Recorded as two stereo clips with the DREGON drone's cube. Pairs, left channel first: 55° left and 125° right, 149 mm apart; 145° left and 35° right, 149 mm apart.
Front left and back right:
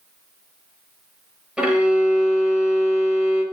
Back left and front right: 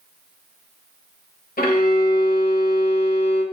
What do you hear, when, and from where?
1.6 s a violin: 150° left, 0.9 m